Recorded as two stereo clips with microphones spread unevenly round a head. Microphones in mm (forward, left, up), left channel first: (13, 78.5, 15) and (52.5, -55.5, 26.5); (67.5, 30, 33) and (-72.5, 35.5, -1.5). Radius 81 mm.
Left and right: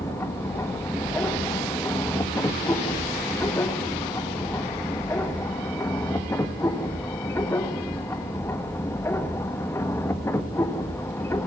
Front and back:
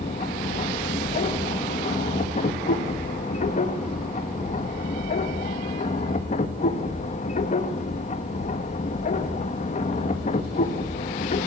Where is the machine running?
40° left, 1.6 m.